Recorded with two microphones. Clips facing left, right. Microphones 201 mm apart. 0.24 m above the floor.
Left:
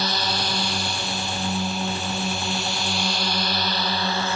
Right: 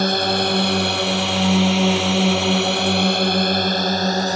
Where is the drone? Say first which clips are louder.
Right 9 dB; 50° right (ahead or behind); by 4.4 s 40° right (ahead or behind).